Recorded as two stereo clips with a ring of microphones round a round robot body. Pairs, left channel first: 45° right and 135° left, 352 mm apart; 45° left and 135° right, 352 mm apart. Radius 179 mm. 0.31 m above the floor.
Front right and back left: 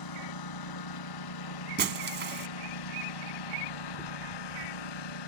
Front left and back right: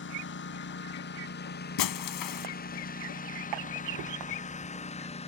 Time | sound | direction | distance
0.0 | a lawn mower | 15° right | ?
1.8 | breaking glass | 75° left | ?